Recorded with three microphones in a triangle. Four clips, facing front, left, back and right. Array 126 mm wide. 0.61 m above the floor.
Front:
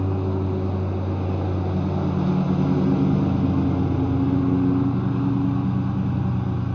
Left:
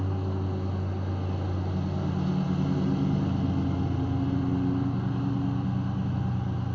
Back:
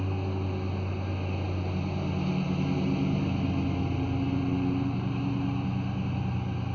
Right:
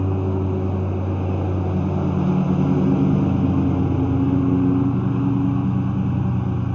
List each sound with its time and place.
0.0 s a lawn mower: 65° right